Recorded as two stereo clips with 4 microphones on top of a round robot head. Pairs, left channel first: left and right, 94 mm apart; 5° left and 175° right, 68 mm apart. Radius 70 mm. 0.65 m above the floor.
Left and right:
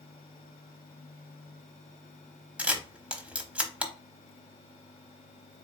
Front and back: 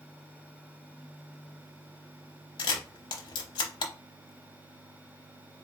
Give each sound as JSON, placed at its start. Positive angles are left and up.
{"t": 2.6, "sound": "a camera shutter", "azimuth_deg": -15, "distance_m": 0.8}